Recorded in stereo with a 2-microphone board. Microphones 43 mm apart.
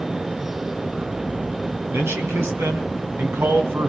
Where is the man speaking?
75° right (ahead or behind), 3.5 m.